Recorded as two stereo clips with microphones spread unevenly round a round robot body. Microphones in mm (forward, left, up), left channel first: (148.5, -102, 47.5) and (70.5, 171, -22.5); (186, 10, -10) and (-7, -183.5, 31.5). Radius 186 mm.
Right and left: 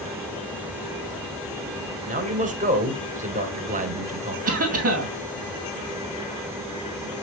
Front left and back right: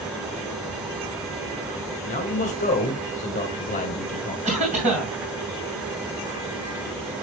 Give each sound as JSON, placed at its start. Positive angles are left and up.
{"t": 2.1, "sound": "a man speaking", "azimuth_deg": 85, "distance_m": 1.7}
{"t": 4.5, "sound": "a cough", "azimuth_deg": 150, "distance_m": 2.5}